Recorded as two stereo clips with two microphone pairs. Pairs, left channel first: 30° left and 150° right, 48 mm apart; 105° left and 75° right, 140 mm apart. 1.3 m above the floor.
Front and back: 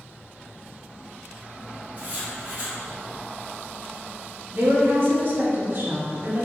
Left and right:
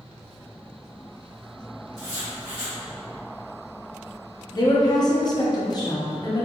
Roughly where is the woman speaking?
Behind.